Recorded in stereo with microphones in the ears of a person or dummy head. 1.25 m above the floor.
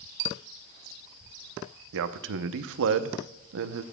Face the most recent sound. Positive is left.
turn(degrees=-65)  # may be behind; listen again after turning